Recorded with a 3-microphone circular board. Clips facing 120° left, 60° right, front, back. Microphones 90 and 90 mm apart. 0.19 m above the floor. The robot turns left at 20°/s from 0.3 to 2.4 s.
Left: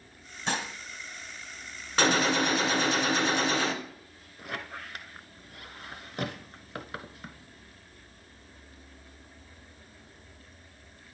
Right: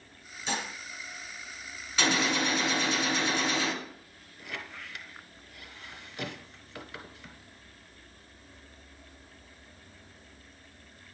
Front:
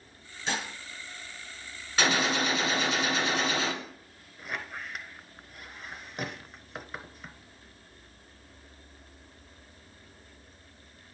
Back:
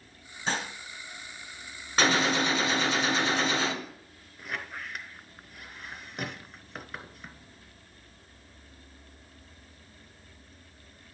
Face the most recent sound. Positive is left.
turn(degrees=90)